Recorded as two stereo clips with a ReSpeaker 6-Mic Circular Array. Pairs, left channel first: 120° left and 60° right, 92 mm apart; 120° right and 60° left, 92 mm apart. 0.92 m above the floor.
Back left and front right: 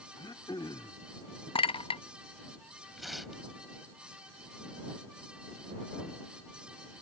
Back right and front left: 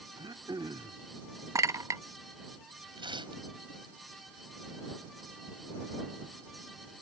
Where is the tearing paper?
30° left.